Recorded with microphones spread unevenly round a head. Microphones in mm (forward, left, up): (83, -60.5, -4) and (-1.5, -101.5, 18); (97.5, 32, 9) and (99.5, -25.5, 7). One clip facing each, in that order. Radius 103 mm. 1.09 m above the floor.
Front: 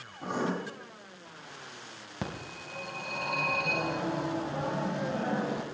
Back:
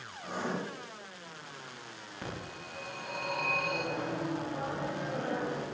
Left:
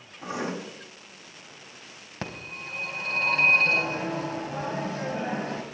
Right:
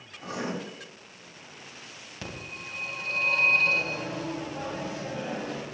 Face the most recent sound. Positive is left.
turn(degrees=60)